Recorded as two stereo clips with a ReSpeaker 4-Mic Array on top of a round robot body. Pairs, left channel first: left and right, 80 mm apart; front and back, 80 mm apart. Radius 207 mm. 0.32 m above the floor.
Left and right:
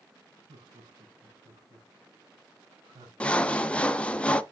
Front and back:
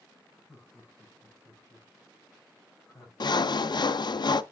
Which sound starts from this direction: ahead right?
Laughter, at 0.5 s.